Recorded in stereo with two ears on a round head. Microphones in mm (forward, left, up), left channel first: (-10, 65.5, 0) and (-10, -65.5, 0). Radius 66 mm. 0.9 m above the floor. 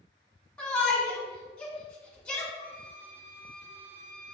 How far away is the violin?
About 0.9 m.